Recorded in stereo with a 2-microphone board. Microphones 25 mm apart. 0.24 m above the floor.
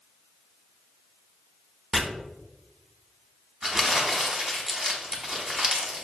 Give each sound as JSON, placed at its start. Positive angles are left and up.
{"t": 1.9, "sound": "chopping", "side_deg": 0, "distance_m": 0.7}
{"t": 3.6, "sound": "crumpling", "side_deg": -20, "distance_m": 0.8}